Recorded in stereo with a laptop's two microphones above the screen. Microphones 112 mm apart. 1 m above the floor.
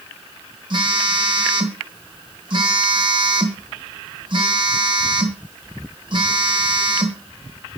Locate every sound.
0.7 s a phone buzzing: 45° right (ahead or behind), 1.2 m